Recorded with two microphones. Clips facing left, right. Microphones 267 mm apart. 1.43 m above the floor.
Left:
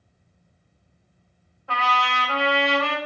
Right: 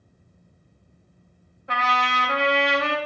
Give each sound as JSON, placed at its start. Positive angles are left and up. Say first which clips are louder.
{"t": 1.7, "sound": "a trumpet", "louder": "even", "side_deg": -20, "distance_m": 0.9}